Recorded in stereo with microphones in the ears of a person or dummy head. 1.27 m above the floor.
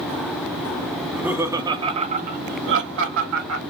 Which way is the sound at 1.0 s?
Centre (ahead or behind).